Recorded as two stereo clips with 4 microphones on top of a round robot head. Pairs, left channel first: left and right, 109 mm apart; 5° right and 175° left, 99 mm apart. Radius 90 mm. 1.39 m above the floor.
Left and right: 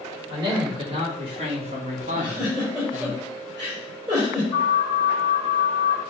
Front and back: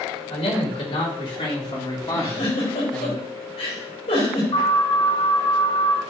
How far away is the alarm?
About 5 m.